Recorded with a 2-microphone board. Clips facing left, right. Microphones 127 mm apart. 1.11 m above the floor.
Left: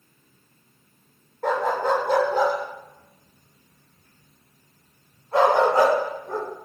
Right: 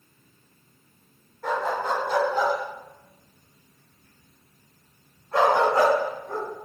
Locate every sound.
1.4 s a dog barking: 60° left (ahead or behind), 1.1 m; by 6.5 s 25° left (ahead or behind), 3 m